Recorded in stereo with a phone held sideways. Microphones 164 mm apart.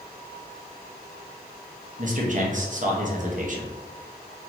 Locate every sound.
2.0 s a man speaking: 50° right (ahead or behind), 0.7 m